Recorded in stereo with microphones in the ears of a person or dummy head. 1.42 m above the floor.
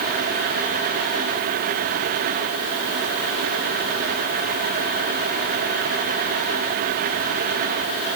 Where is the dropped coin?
I don't hear a dropped coin.